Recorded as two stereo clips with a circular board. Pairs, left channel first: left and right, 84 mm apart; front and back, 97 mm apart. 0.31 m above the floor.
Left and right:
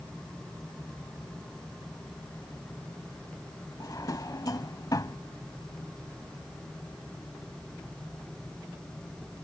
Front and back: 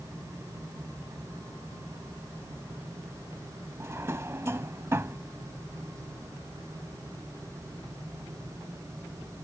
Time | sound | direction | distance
3.8 | a drawer | 120° left | ?